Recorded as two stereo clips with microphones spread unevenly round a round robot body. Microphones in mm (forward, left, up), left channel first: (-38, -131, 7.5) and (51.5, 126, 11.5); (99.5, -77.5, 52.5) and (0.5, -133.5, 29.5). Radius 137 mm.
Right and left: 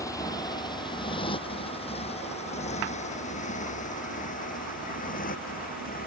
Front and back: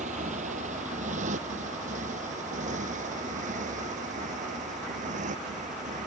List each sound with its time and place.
0.0 s a motorcycle: 170° left; by 6.1 s 170° right